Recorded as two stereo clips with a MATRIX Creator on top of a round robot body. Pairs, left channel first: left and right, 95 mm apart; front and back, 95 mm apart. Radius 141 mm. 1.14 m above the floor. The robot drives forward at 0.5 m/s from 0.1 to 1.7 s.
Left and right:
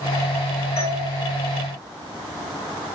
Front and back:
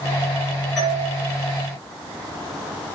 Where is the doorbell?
95° left, 6.5 m.